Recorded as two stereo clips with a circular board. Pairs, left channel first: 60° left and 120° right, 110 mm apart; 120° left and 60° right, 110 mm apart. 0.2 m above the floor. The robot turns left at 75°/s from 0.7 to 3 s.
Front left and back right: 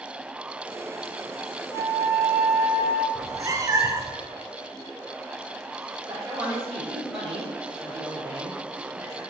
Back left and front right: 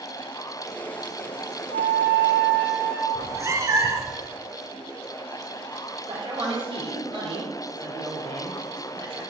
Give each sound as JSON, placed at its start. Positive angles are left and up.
{"t": 1.7, "sound": "a flute", "azimuth_deg": 120, "distance_m": 1.7}
{"t": 3.1, "sound": "a cat meowing", "azimuth_deg": -95, "distance_m": 0.8}
{"t": 6.1, "sound": "a man speaking", "azimuth_deg": -70, "distance_m": 2.5}